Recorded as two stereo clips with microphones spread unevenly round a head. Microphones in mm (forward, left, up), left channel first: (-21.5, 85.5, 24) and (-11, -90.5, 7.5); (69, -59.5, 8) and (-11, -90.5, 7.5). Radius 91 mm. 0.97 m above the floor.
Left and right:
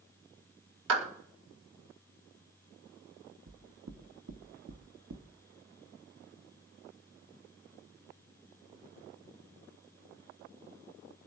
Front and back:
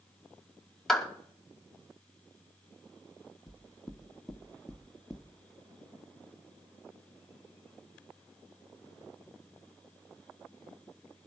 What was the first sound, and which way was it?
A clap, 65° right.